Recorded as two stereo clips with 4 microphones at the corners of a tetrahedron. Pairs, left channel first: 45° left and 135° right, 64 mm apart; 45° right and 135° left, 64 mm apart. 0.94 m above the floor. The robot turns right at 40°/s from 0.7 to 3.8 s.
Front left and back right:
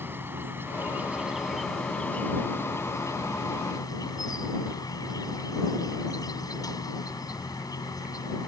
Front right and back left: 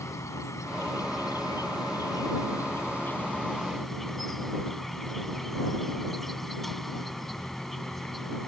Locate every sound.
0.0 s an insect: 80° right; by 8.5 s 40° left